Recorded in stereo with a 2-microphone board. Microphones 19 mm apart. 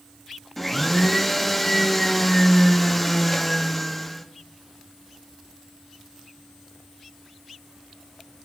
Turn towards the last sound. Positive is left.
turn(degrees=10)  # may be behind; listen again after turning